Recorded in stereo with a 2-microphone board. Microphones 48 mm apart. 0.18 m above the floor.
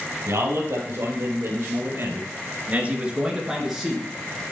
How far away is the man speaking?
About 4 m.